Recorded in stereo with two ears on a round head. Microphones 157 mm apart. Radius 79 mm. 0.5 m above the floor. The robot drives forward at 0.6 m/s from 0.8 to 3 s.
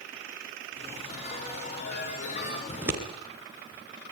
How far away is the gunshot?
I don't hear a gunshot.